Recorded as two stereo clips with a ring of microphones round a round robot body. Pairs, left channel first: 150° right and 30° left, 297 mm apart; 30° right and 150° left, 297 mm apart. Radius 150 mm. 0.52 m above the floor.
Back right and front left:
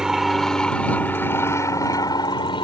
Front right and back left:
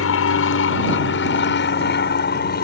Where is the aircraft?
60° right; by 2.6 s 80° right.